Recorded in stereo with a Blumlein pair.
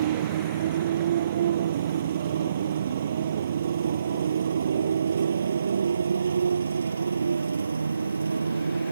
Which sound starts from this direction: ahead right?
A motorcycle, at 0.0 s.